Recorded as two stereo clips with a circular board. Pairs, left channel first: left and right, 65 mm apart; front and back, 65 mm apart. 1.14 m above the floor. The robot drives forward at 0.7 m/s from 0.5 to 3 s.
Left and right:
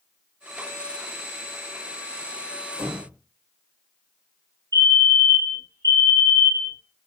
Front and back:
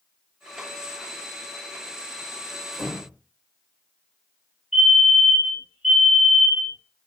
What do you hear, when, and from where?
2.7 s a door slam: 95° right, 4 m; by 3.2 s 100° right, 4 m
4.7 s a fire alarm: 95° right, 4 m